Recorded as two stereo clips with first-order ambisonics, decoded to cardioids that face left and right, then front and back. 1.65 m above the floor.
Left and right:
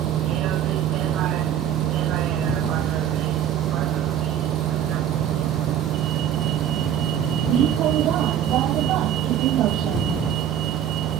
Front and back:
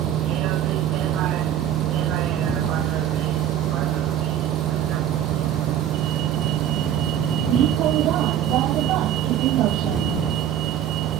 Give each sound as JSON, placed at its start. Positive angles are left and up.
{"t": 0.0, "sound": "a vehicle", "azimuth_deg": -135}